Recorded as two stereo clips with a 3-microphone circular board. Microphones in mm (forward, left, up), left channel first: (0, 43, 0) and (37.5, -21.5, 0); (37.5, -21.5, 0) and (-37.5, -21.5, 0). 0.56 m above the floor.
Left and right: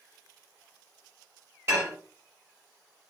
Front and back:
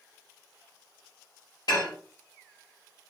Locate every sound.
1.7 s dishes clattering: 10° right, 1.4 m